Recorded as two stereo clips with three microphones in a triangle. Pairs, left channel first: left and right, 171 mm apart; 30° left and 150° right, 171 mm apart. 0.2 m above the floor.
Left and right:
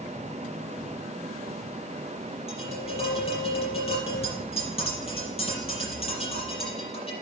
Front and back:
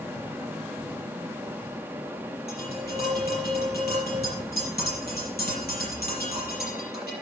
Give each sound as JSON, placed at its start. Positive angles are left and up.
{"t": 2.5, "sound": "tapping", "azimuth_deg": 40, "distance_m": 6.0}